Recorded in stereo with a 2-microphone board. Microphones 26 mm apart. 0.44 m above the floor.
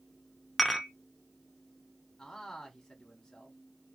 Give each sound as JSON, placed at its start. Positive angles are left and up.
{"t": 0.6, "sound": "dishes clattering", "side_deg": 5, "distance_m": 0.6}
{"t": 2.2, "sound": "a man speaking", "side_deg": 20, "distance_m": 1.0}